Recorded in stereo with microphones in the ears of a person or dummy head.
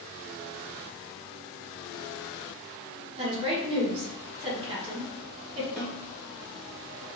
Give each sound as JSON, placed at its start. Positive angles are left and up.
{"t": 3.2, "sound": "a woman speaking", "side_deg": -30, "distance_m": 1.3}
{"t": 5.8, "sound": "a snare drum", "side_deg": -5, "distance_m": 0.9}